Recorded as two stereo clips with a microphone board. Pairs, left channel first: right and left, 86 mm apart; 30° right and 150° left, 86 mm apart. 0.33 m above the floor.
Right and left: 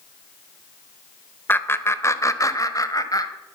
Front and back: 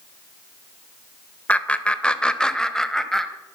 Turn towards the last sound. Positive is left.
turn(degrees=-115)